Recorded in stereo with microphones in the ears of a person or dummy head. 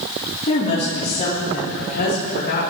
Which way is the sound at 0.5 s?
40° left (ahead or behind).